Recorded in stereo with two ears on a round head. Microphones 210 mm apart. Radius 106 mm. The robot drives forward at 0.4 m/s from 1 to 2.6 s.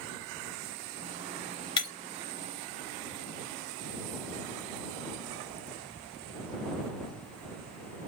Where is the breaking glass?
20° left (ahead or behind), 1.2 m.